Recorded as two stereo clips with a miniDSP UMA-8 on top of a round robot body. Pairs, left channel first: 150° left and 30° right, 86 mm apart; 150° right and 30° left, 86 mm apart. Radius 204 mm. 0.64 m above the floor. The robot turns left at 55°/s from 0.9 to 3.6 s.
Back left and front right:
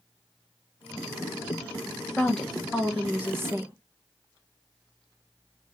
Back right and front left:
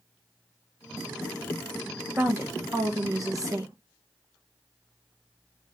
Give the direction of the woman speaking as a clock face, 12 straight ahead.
9 o'clock.